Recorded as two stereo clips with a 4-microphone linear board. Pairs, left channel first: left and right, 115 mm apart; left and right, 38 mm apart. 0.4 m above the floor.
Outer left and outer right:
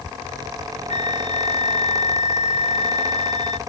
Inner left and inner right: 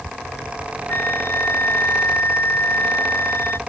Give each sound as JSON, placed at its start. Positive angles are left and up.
{"t": 0.9, "sound": "a flute", "side_deg": 75}